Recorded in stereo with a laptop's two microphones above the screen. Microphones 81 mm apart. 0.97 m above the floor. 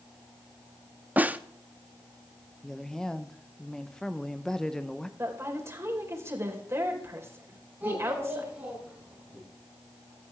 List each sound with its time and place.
1.2 s a snare drum: 20° right (ahead or behind), 0.7 m
2.6 s a woman speaking: 5° left (ahead or behind), 0.7 m
5.2 s a woman speaking: 35° right (ahead or behind), 4 m
7.8 s a child speaking: 15° right (ahead or behind), 7 m